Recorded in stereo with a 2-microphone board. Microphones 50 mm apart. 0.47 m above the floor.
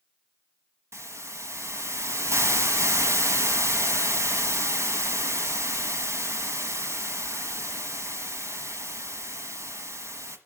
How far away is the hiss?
About 1.3 m.